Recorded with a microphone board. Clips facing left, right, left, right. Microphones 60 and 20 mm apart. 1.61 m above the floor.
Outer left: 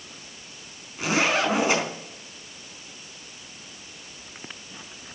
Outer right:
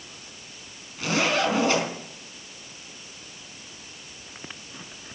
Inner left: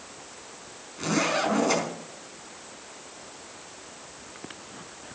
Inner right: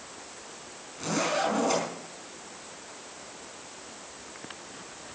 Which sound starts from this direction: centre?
A zipper, at 1.0 s.